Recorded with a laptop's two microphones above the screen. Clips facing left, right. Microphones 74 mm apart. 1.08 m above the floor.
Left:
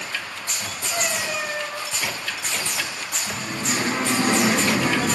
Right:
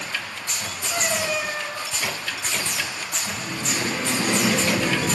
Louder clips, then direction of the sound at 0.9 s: Right 2 dB; 85° right.